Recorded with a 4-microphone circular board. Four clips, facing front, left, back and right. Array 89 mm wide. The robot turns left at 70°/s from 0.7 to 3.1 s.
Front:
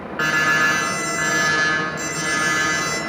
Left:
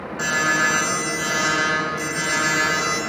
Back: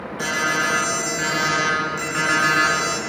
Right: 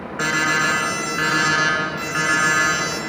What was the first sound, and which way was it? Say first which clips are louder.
An alarm: right 1 dB, front 4 dB; 30° right.